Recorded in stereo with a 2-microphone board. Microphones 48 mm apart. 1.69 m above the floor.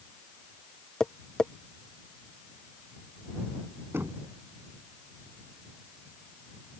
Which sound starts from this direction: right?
Knocking, at 3.9 s.